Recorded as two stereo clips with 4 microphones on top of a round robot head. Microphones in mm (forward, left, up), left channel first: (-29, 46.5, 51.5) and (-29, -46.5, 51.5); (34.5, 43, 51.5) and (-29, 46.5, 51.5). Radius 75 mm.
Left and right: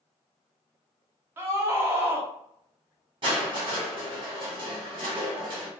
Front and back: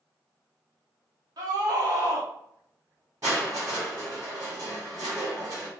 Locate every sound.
1.4 s a scream: 155° right, 1.3 m
3.2 s crushing: 125° right, 2 m